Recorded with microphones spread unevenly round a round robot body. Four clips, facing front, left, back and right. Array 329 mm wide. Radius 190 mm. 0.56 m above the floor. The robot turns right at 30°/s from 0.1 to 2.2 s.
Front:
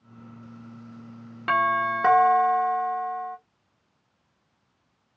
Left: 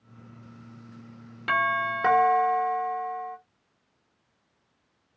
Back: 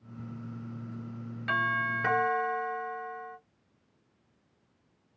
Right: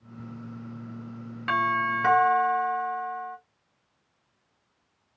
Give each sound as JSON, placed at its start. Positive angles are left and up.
{"t": 1.5, "sound": "a doorbell", "azimuth_deg": 5, "distance_m": 1.4}